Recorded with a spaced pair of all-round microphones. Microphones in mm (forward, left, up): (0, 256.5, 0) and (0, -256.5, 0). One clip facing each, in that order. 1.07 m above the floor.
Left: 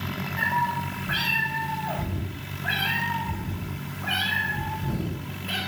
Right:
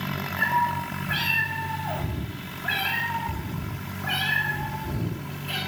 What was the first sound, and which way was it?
A cat meowing, 75° left (ahead or behind).